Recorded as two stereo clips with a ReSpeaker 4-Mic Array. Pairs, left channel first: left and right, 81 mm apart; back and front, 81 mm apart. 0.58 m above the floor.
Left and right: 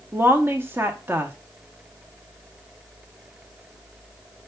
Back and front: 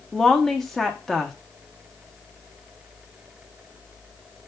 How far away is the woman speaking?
About 0.6 m.